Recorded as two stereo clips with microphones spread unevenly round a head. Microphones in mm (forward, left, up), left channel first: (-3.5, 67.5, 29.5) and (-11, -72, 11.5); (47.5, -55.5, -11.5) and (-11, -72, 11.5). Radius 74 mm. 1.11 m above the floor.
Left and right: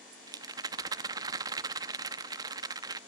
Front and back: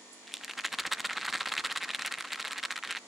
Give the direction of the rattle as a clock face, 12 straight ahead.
5 o'clock.